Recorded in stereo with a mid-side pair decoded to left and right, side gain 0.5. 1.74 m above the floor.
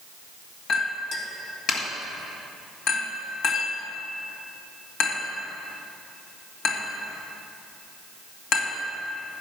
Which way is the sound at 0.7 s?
65° left.